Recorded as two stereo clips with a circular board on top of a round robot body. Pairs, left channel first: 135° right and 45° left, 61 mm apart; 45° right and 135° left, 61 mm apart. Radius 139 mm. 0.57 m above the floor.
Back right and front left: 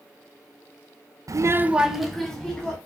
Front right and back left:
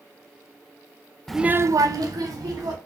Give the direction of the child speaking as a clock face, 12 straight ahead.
11 o'clock.